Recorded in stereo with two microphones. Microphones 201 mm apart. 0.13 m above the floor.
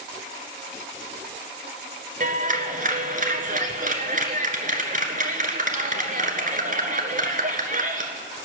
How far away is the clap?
About 1.5 m.